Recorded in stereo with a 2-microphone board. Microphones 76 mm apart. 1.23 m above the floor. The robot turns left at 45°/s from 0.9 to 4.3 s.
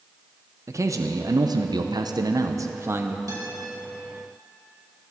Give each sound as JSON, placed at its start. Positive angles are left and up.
{"t": 0.7, "sound": "a man speaking", "azimuth_deg": -50, "distance_m": 0.7}
{"t": 3.3, "sound": "a guitar", "side_deg": -50, "distance_m": 3.5}